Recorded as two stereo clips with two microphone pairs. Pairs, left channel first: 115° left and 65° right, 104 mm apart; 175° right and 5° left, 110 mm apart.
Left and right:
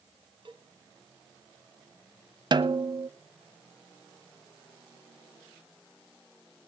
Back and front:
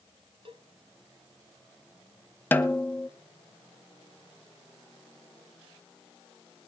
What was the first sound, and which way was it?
A cowbell, 30° right.